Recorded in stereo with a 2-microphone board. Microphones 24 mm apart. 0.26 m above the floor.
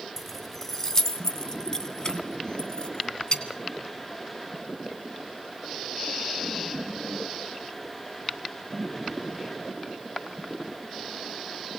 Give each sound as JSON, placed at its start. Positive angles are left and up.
{"t": 0.2, "sound": "keys jangling", "side_deg": 10, "distance_m": 1.2}